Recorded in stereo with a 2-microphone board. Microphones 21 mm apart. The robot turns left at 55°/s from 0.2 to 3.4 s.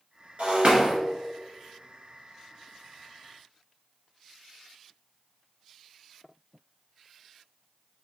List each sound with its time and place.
0.4 s breaking glass: 100° right, 1.7 m; by 0.9 s 130° right, 1.7 m